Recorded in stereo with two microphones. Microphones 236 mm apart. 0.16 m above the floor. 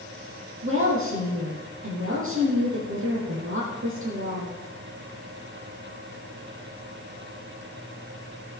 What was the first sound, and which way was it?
A woman speaking, 65° right (ahead or behind).